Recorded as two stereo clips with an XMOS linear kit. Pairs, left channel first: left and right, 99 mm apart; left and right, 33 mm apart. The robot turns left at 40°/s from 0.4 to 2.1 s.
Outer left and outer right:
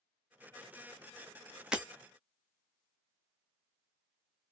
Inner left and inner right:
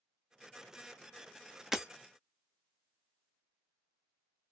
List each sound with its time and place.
1.7 s breaking glass: 10° right (ahead or behind), 0.6 m; by 1.9 s 15° right (ahead or behind), 0.6 m